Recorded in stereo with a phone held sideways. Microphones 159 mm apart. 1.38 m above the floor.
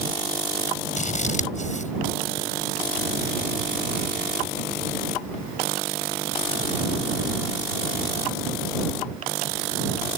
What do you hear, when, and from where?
1.0 s scissors: 50° left (ahead or behind)